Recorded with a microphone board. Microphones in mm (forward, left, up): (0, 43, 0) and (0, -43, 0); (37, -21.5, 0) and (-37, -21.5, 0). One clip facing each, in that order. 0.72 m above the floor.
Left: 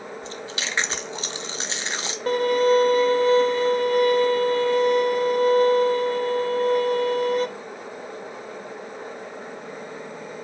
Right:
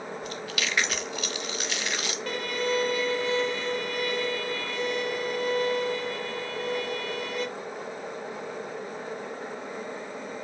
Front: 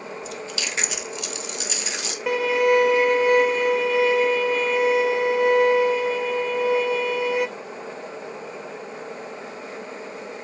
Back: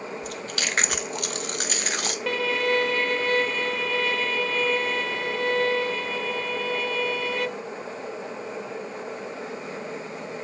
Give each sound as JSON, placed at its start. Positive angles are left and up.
{"t": 0.2, "sound": "chewing", "azimuth_deg": 150, "distance_m": 1.1}
{"t": 2.3, "sound": "a violin", "azimuth_deg": 75, "distance_m": 1.2}